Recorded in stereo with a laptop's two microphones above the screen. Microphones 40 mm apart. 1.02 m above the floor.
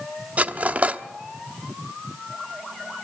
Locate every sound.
0.4 s cutlery clinking: 35° right (ahead or behind), 0.9 m